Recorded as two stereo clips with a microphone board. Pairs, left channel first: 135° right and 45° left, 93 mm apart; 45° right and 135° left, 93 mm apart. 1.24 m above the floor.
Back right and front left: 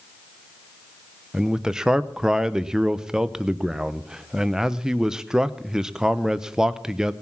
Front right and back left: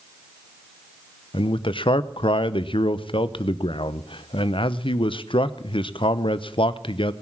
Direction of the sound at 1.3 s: 40° right.